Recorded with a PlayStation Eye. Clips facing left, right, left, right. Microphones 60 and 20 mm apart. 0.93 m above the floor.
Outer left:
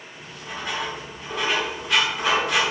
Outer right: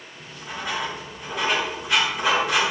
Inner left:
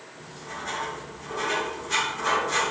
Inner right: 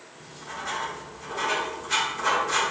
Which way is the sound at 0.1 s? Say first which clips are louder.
Even, even; centre (ahead or behind).